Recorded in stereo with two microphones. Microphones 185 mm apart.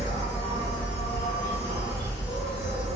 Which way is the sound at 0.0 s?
65° left (ahead or behind).